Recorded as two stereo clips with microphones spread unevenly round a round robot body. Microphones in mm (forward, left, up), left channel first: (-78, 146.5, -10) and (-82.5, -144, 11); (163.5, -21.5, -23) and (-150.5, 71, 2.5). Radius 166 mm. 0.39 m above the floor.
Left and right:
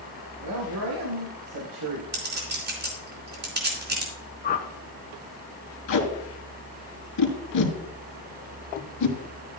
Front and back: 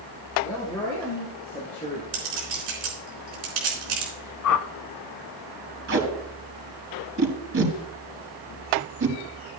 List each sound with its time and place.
0.4 s a man speaking: 95° right, 3 m; by 2.0 s 85° right, 1.7 m
2.1 s a clink: 145° right, 4 m
4.4 s a whoosh: 20° left, 0.9 m
5.9 s tape being pulled: 115° left, 3.5 m